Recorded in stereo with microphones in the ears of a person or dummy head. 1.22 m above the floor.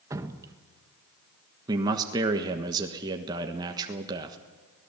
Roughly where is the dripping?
Centre.